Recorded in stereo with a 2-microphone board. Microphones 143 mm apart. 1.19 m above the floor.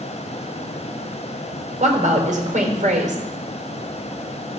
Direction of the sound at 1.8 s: 60° right (ahead or behind).